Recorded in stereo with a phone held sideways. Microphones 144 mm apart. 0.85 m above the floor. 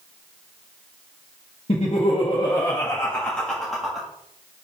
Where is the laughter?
50° left (ahead or behind), 1.4 m; by 4.1 s 5° right (ahead or behind), 1.6 m.